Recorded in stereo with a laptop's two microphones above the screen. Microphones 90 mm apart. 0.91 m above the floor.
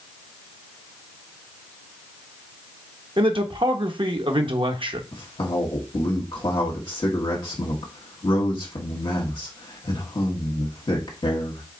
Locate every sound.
3.2 s a man speaking: 60° right (ahead or behind), 0.8 m
5.1 s a man speaking: 60° left (ahead or behind), 1.2 m